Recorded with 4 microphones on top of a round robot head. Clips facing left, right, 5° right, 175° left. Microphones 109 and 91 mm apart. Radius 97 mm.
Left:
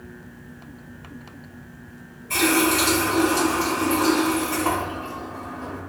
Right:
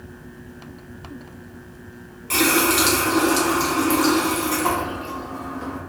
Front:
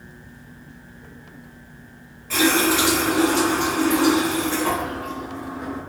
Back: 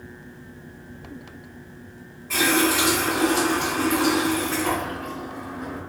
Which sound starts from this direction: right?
A running tap, at 2.3 s.